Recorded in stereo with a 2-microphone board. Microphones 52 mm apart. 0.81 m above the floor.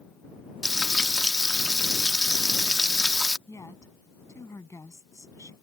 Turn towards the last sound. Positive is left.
turn(degrees=80)